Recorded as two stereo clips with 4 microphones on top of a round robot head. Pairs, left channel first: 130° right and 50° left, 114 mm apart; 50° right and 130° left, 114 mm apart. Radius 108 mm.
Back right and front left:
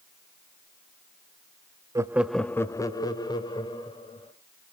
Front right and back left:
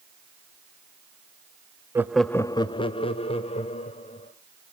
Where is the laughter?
80° left, 0.7 m; by 4.3 s 80° right, 2.5 m.